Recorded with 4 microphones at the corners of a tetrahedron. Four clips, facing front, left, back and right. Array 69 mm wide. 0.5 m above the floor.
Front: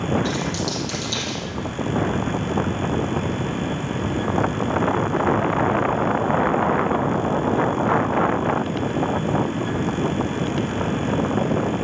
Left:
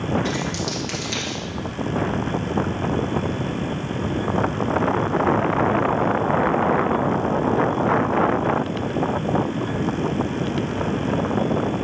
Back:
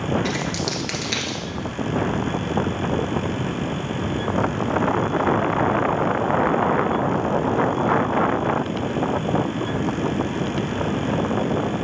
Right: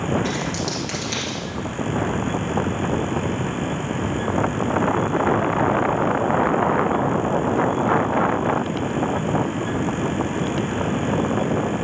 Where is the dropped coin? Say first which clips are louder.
Even, even; 175° left, 1.9 m.